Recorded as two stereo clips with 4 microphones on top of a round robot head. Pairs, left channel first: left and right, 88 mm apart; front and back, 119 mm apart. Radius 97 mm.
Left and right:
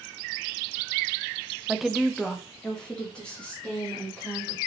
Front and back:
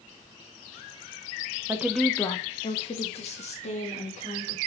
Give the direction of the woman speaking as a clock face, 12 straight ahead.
6 o'clock.